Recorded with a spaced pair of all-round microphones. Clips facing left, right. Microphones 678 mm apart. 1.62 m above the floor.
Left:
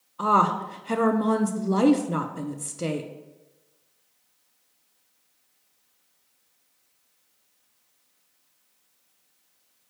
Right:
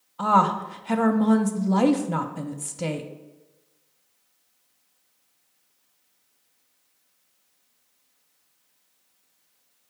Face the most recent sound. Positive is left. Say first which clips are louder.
# right 1 dB
turn(degrees=-25)  # may be behind; listen again after turning